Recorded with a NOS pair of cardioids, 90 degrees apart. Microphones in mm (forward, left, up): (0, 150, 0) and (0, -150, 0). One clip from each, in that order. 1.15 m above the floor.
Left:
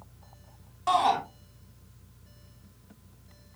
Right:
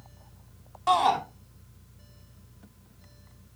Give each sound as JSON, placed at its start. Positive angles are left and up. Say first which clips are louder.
{"t": 0.9, "sound": "a shout", "louder": "right 1 dB", "azimuth_deg": -10, "distance_m": 2.5}